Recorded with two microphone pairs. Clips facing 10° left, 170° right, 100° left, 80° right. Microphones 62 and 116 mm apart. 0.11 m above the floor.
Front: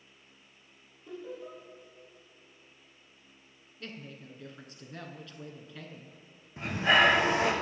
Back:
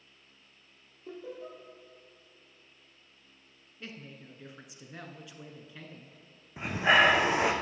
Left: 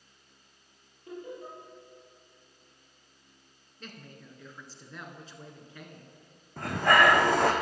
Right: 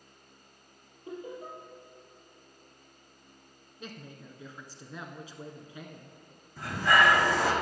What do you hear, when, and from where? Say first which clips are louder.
1.1 s laughter: even, right 1 dB; 140° right, 3 m
3.8 s a woman speaking: front 1 dB, right 3 dB; 130° right, 1.1 m
6.6 s breathing: back 1 dB, left 2 dB; 125° left, 1.5 m